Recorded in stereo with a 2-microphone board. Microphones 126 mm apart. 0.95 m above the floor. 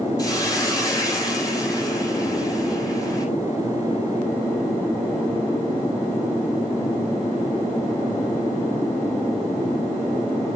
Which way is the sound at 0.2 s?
30° left (ahead or behind).